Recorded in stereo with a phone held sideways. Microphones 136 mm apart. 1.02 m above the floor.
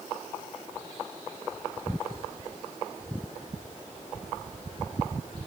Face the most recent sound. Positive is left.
No sound to turn to.